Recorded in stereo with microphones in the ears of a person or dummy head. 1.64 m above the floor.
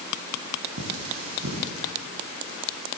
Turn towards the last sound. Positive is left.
turn(degrees=-85)